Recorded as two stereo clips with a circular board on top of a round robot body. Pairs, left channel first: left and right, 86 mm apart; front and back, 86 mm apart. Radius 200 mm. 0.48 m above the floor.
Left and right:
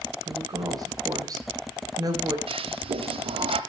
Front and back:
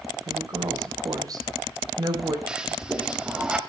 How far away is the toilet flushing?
About 0.7 m.